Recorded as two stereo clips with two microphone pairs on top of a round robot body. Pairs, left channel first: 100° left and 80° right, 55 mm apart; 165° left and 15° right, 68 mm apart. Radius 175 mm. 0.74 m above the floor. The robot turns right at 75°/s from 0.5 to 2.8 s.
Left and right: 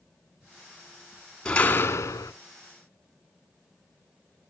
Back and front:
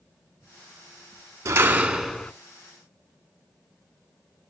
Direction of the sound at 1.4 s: 20° left.